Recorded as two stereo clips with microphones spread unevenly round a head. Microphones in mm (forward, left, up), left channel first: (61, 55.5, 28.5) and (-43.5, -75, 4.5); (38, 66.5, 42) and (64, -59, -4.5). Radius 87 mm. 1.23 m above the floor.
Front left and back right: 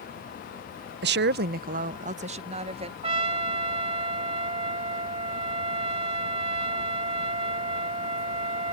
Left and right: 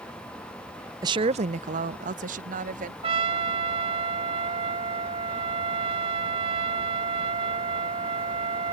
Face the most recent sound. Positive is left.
turn(degrees=-125)